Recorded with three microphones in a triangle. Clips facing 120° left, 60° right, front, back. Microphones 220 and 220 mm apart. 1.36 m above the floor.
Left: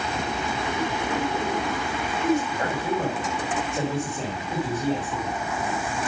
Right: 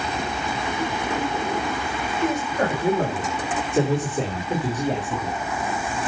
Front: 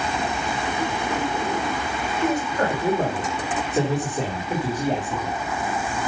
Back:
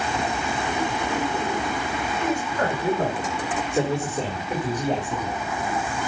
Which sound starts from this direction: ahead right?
A man speaking, at 2.2 s.